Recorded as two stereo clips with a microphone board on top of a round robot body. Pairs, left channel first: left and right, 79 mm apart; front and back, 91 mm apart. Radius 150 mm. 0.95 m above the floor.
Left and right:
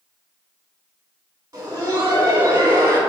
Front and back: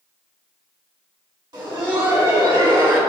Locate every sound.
1.5 s laughter: 145° right, 2 m